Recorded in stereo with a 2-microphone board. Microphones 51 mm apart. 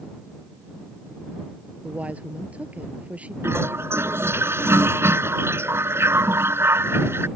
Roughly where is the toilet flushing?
Right.